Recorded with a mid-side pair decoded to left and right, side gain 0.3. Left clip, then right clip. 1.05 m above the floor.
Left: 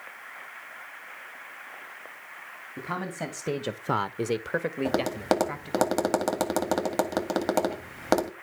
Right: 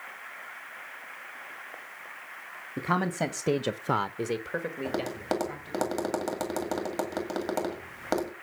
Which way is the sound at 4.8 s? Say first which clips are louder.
Left 7 dB; 65° left.